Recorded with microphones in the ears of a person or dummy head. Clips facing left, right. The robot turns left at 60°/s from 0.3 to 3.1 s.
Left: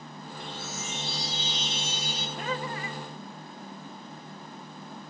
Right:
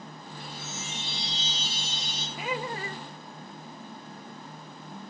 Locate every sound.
0.4 s a chime: straight ahead, 2 m; by 2.3 s 115° right, 2 m
2.4 s laughter: straight ahead, 0.5 m; by 3.0 s 40° right, 0.5 m